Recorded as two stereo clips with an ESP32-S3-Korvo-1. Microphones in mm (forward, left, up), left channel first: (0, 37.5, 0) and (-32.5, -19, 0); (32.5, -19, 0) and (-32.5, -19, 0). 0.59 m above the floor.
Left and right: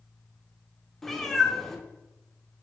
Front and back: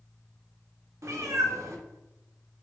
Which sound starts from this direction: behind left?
A cat meowing, at 1.0 s.